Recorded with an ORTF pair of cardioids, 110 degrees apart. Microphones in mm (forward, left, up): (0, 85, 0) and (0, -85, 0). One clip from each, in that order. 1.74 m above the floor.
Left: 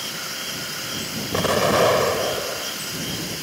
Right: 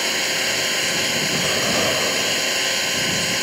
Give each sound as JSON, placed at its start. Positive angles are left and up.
{"t": 0.0, "sound": "an engine running", "azimuth_deg": -65}
{"t": 1.3, "sound": "an explosion", "azimuth_deg": 45}